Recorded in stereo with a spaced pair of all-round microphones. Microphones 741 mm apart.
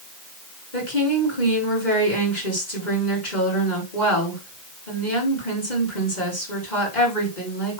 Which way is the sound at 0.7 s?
75° left (ahead or behind).